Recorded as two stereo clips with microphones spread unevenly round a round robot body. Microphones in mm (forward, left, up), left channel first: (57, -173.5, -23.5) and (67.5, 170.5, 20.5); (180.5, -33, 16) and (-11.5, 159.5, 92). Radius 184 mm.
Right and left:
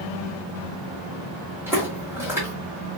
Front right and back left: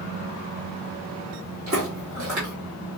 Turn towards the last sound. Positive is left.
turn(degrees=170)